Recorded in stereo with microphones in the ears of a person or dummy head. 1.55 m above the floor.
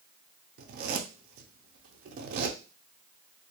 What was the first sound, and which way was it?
A zipper, 55° right (ahead or behind).